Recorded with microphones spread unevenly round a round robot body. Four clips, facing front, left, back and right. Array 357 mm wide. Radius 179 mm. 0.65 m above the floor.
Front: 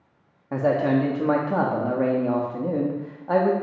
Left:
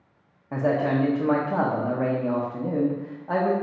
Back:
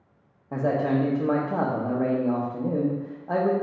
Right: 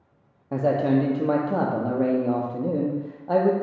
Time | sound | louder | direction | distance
0.5 | a man speaking | right 2 dB, front 3 dB | 40° right | 0.5 m